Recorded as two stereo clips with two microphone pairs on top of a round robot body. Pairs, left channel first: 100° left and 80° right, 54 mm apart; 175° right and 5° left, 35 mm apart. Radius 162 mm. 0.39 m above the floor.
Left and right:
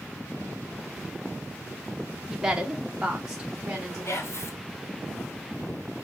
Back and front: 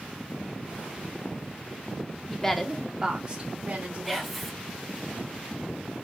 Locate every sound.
2.3 s a woman speaking: 140° right, 0.8 m; by 4.3 s 5° right, 1.2 m
4.0 s whispering: 95° left, 1.1 m